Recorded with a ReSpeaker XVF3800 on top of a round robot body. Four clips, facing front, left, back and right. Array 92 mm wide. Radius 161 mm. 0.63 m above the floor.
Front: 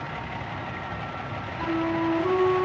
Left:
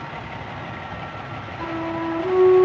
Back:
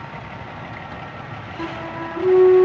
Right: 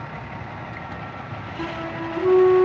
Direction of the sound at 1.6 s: 140° right.